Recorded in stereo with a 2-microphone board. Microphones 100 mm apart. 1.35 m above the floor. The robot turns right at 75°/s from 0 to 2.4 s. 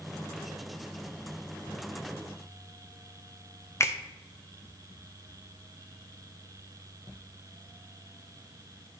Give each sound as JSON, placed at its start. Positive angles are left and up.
{"t": 3.8, "sound": "a finger snap", "side_deg": 30, "distance_m": 0.6}